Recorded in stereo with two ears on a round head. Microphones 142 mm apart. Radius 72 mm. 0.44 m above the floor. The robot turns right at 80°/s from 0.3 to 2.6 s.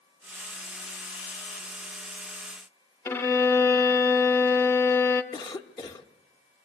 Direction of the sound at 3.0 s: 15° left (ahead or behind).